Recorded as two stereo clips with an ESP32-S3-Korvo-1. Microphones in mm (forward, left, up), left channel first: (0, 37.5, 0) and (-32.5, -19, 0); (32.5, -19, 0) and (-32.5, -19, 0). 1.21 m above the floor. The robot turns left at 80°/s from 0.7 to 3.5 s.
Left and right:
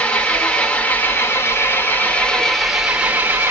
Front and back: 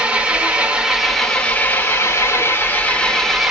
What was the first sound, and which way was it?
An engine running, 125° left.